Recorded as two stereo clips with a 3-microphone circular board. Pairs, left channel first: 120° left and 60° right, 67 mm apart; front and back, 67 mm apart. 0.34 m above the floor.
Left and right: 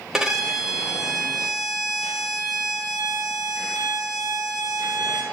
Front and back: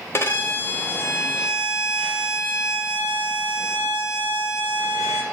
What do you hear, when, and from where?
0.1 s a violin: 20° left, 0.9 m